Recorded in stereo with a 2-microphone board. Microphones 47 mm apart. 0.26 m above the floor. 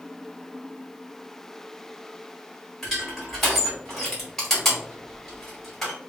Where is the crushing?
10° left (ahead or behind), 1.8 m.